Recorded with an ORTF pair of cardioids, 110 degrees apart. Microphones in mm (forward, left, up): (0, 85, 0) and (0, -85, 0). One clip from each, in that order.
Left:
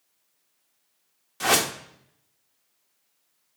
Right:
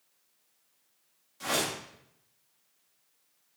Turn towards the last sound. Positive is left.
turn(degrees=60)